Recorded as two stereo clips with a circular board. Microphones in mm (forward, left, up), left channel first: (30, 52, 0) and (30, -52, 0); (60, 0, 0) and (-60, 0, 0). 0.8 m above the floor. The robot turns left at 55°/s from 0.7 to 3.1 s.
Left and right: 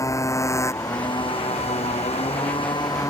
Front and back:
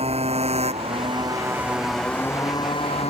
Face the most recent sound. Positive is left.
turn(degrees=30)